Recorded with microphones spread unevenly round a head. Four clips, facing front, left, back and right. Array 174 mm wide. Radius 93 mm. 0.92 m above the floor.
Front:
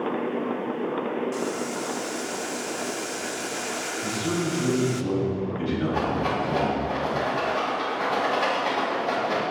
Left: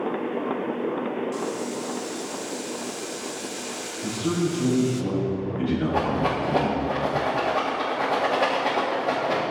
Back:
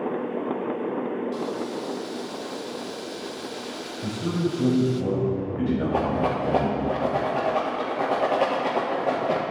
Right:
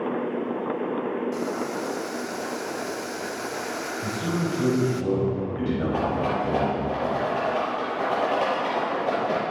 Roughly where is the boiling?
Ahead right.